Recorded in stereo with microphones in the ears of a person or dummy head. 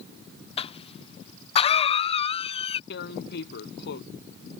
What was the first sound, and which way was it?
A cough, 35° left (ahead or behind).